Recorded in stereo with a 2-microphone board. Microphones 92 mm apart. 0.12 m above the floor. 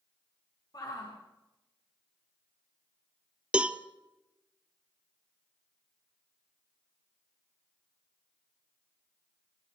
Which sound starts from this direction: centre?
A cowbell, at 3.5 s.